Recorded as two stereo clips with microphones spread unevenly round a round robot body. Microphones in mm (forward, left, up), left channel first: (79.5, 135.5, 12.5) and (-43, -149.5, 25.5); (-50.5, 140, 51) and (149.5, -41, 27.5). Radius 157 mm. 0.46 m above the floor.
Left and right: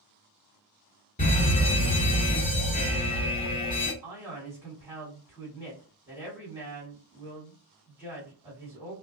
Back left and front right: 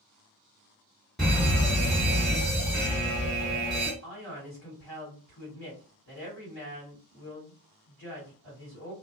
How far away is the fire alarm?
About 1.8 m.